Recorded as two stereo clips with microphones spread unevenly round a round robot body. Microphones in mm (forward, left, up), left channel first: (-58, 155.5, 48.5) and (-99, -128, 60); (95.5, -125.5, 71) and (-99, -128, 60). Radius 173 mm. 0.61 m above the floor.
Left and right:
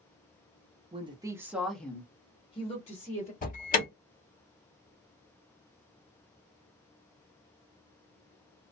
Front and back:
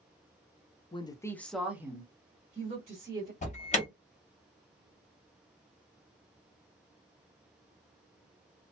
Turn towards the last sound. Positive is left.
turn(degrees=40)